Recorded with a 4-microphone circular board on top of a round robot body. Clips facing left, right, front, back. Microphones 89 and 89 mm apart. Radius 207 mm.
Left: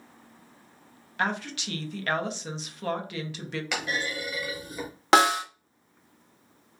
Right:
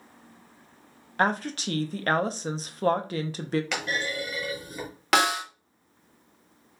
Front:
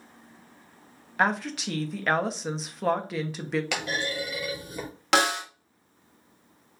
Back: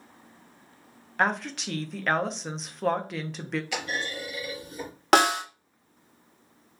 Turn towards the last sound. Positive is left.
turn(degrees=145)